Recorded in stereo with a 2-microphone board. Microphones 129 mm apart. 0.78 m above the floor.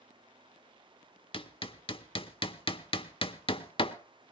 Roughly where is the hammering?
Left.